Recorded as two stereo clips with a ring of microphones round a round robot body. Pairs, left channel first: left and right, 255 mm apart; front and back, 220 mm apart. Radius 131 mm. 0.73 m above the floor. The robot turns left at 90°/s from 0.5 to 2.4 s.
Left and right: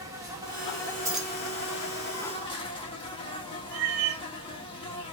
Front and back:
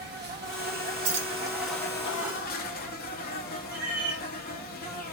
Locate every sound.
0.0 s an insect: 165° right, 1.0 m; by 5.1 s 25° left, 1.0 m
1.0 s keys jangling: 165° right, 0.9 m; by 1.3 s 170° left, 0.9 m
3.7 s a cat meowing: 145° right, 1.1 m